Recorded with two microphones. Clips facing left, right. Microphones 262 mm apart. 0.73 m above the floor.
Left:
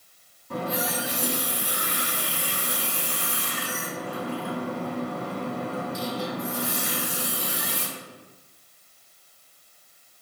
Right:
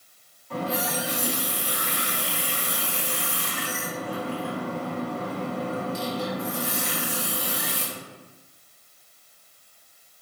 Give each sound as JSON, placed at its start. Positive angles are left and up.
{"t": 0.5, "sound": "a running tap", "side_deg": 40, "distance_m": 1.1}